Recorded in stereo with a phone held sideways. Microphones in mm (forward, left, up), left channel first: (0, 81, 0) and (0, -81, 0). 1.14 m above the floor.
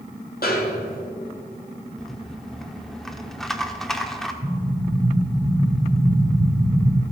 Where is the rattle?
5° left (ahead or behind), 0.8 m.